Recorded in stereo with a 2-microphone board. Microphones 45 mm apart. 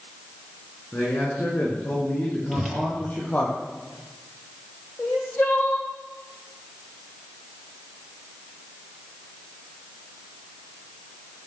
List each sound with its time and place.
0.9 s a man speaking: 45° left (ahead or behind), 9.5 m; by 3.5 s 40° left (ahead or behind), 7.5 m
2.5 s a whoosh: 5° left (ahead or behind), 4 m
5.0 s crying: 65° left (ahead or behind), 2.5 m